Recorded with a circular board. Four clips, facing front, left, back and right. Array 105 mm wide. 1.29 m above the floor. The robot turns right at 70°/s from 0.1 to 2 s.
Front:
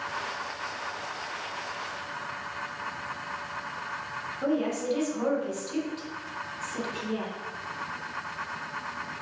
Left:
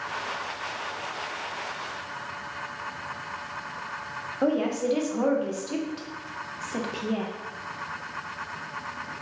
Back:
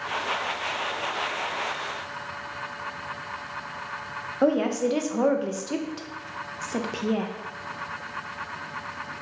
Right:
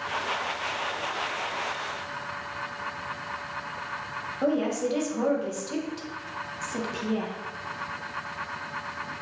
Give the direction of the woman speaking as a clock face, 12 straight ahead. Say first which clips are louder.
Left 1 dB, back 6 dB; 6 o'clock.